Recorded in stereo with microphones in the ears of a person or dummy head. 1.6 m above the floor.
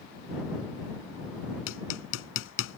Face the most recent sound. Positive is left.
turn(degrees=75)  # may be behind; listen again after turning